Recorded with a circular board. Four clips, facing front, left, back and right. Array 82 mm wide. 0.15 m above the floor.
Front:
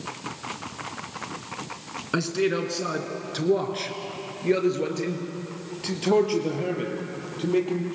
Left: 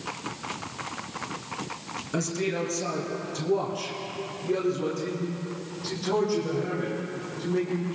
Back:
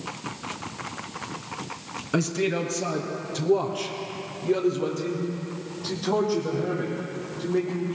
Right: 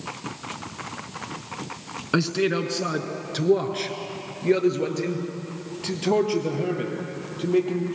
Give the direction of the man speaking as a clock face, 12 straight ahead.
2 o'clock.